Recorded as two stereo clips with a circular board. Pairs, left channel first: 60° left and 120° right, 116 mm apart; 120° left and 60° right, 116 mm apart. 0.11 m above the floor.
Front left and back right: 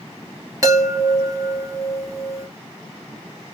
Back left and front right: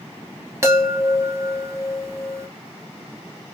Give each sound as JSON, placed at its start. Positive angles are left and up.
{"t": 0.6, "sound": "a chime", "azimuth_deg": -95, "distance_m": 1.0}